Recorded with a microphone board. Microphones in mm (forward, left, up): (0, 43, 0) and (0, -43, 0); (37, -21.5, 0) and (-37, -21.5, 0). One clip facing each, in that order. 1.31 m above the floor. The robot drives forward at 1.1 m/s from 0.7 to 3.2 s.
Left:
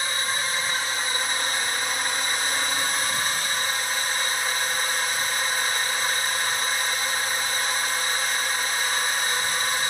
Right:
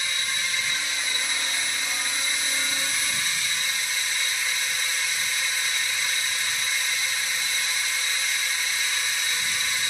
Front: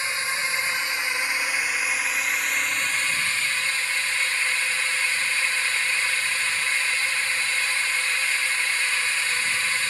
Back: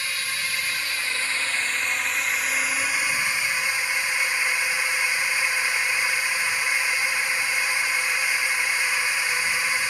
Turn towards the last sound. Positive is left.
turn(degrees=110)